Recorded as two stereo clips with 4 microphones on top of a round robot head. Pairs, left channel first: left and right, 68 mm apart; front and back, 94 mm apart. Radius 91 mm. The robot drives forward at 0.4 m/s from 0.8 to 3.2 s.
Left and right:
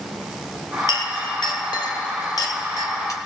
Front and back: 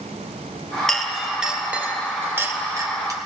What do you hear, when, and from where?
0.9 s a clink: 85° left, 1.1 m; by 3.2 s 125° left, 1.3 m